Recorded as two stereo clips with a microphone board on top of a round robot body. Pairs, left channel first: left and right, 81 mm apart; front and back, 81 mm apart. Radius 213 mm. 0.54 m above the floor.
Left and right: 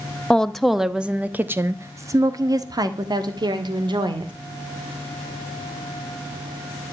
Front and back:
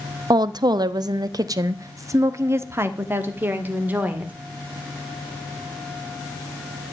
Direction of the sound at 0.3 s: 170° left.